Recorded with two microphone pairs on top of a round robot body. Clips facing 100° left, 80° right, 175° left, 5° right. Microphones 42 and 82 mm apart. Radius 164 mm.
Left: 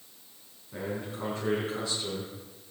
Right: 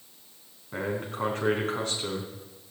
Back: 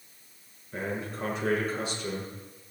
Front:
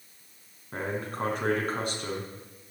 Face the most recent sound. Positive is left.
turn(degrees=-40)